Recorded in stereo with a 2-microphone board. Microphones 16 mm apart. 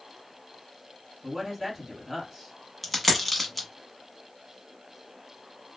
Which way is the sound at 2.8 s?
10° left (ahead or behind).